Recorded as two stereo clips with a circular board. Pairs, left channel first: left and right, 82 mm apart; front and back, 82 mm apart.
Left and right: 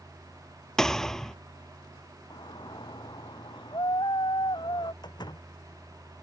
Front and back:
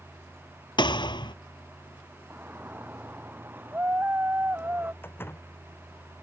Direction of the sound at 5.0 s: 60° left.